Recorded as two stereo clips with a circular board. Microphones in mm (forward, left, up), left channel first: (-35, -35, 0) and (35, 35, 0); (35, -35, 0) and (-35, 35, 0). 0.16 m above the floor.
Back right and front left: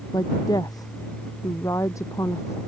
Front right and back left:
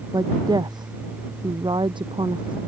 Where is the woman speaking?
Straight behind; by 2.6 s 165° left.